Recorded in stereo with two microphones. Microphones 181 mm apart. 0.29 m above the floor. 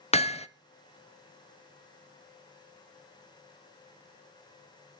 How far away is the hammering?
About 0.6 m.